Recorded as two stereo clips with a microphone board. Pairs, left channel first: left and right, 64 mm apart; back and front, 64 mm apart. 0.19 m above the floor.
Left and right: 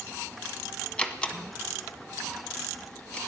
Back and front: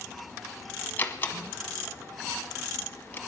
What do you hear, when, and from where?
1.0 s a door slam: 150° left, 1.0 m